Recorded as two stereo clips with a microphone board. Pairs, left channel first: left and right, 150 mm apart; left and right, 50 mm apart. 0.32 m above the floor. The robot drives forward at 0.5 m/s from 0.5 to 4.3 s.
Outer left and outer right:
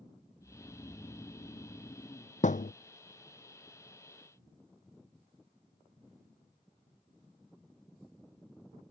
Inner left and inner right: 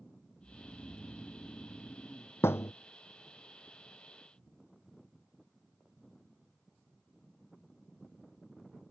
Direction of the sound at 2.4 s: 60° left (ahead or behind).